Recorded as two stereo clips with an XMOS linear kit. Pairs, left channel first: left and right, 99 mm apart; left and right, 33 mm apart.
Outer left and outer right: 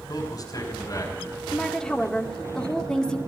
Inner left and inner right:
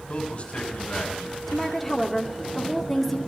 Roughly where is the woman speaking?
Centre.